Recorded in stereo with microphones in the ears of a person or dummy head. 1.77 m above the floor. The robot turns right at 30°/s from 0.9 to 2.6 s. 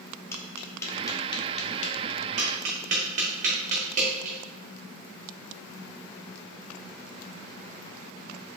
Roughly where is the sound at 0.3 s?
Centre.